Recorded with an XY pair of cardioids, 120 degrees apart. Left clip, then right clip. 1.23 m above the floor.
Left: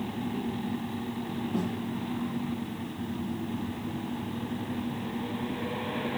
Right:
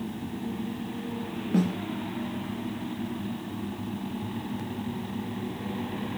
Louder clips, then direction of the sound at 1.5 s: Right 6 dB; 50° right.